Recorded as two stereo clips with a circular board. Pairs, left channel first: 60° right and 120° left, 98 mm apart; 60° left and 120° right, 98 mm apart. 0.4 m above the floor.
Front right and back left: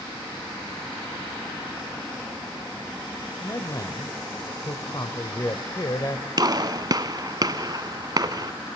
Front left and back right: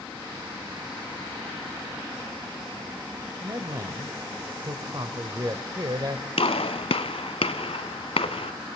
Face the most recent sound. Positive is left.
turn(degrees=70)